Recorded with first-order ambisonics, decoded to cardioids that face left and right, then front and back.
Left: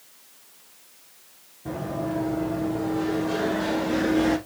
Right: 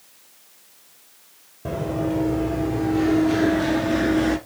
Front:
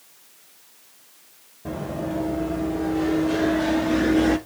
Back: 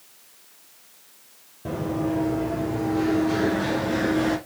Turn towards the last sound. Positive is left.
turn(degrees=-65)